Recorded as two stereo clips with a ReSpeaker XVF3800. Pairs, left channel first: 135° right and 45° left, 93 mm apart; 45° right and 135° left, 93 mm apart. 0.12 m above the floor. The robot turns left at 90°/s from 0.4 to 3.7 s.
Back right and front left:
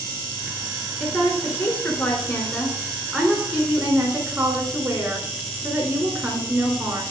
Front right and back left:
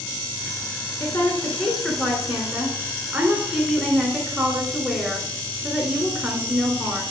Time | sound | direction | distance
1.0 | a woman speaking | 50° right | 1.4 m